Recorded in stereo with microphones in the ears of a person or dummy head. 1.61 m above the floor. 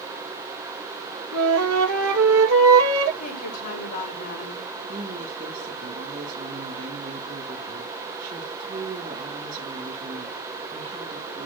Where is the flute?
75° right (ahead or behind), 2.5 m.